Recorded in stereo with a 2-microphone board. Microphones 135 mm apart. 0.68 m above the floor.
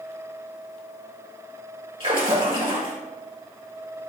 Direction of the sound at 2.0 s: 40° right (ahead or behind).